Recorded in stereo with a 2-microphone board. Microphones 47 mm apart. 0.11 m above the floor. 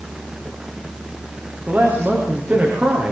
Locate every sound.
1.7 s a man speaking: 40° right (ahead or behind), 9.5 m